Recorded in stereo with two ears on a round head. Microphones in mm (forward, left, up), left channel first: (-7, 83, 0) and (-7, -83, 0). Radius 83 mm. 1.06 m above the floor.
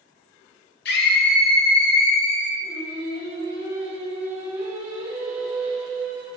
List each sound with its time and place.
0.8 s a scream: 55° left (ahead or behind), 0.6 m
2.6 s singing: 30° right (ahead or behind), 1.3 m